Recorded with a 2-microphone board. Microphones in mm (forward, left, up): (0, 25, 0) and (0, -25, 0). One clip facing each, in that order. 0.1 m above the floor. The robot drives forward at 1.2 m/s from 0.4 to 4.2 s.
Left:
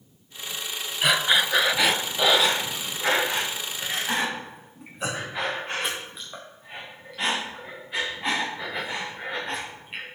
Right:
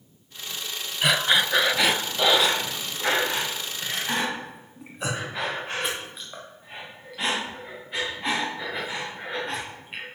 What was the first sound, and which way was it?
Breathing, centre (ahead or behind).